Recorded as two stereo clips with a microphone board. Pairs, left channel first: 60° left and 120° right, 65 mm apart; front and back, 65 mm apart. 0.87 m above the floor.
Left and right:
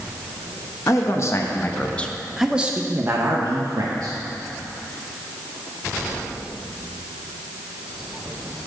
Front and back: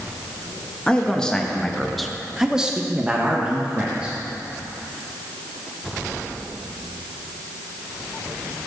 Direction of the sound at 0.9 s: 75° left.